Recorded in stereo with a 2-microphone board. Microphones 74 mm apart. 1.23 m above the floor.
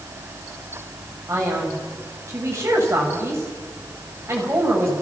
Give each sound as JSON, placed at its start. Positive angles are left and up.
{"t": 1.3, "sound": "a man speaking", "side_deg": -35, "distance_m": 6.5}